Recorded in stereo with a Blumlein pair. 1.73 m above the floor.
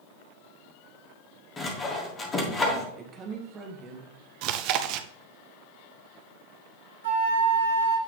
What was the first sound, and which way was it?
Sawing, 20° left.